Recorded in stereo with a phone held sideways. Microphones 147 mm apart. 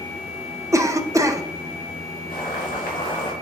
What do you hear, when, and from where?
0.7 s a cough: 20° right (ahead or behind), 0.7 m
2.3 s boiling: 75° left (ahead or behind), 3.5 m